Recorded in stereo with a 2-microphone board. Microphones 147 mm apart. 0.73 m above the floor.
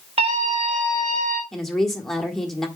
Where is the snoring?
I don't hear snoring.